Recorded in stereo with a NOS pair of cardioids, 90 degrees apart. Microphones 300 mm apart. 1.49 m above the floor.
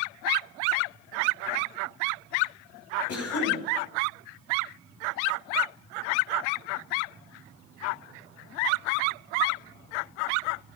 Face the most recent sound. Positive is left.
turn(degrees=55)